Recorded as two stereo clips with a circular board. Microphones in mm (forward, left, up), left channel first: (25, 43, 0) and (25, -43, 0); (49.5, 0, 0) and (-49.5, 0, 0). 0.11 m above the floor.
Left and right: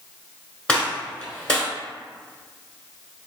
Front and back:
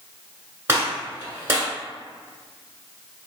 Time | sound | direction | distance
0.7 | a gunshot | 155° left | 1.3 m